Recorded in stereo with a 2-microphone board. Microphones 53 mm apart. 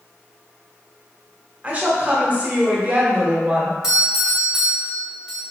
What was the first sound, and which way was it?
A woman speaking, 25° right (ahead or behind).